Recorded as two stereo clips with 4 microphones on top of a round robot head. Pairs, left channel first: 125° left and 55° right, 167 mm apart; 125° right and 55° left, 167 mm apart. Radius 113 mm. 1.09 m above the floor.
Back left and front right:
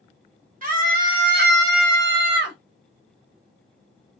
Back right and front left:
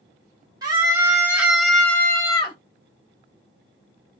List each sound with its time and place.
0.6 s a scream: 10° right, 1.5 m; by 2.6 s 65° right, 1.0 m